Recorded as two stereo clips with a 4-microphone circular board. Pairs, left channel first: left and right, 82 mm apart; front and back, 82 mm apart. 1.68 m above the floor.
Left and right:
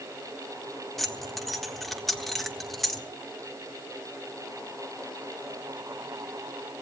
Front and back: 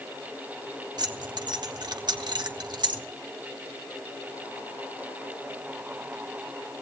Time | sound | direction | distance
1.0 | keys jangling | straight behind | 1.3 m